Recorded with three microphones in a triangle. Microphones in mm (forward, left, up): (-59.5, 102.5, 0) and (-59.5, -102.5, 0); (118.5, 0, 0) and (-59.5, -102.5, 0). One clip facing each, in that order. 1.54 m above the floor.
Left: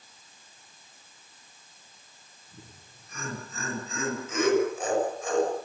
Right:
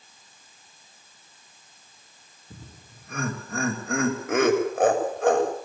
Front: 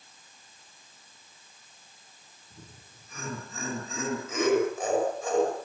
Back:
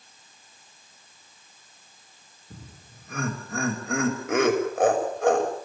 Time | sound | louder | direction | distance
2.5 | laughter | right 5 dB, back 5 dB | 120° right | 6.5 m